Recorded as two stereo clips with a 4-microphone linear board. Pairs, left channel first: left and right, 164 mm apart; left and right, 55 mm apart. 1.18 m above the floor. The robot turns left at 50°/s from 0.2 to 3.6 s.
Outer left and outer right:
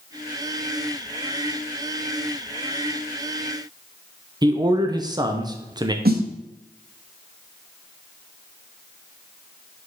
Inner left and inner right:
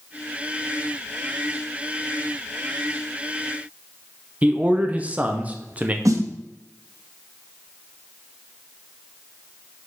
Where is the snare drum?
70° right (ahead or behind), 0.8 m.